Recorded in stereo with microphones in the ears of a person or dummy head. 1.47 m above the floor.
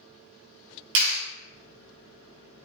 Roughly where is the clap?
Right.